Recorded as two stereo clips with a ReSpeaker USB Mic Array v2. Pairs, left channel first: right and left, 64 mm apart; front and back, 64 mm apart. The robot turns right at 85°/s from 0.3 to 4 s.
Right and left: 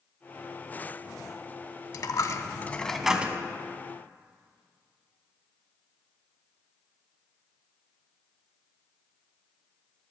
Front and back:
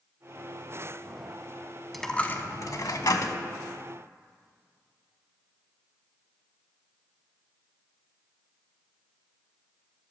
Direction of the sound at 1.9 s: 90° right.